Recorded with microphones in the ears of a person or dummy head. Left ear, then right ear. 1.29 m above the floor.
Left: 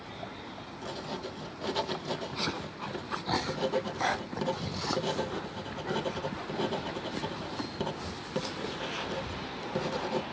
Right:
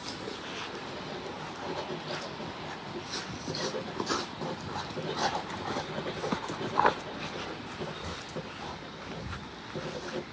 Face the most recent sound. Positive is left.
turn(degrees=75)  # may be behind; listen again after turning